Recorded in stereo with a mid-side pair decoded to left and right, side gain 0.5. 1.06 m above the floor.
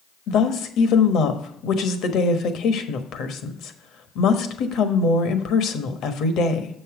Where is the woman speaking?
65° left, 1.2 m.